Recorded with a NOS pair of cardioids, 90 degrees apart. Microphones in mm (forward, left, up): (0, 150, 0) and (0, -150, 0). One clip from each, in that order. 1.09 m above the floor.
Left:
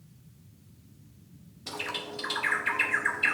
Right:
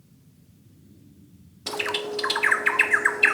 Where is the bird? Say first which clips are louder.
Right 7 dB; 45° right, 0.7 m.